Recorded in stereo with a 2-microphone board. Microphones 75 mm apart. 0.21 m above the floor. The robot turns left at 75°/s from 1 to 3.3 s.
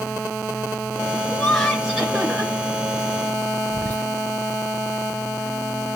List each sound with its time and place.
1.3 s laughter: 20° left (ahead or behind), 1.6 m; by 2.5 s 20° right (ahead or behind), 1.6 m
3.7 s whispering: 20° left (ahead or behind), 1.3 m